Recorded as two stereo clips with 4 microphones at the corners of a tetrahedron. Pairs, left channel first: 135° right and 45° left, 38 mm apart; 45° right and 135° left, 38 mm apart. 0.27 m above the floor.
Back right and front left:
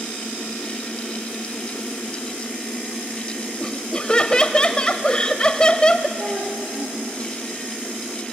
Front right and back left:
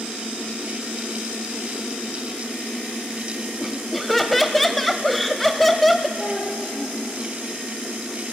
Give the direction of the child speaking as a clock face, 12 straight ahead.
10 o'clock.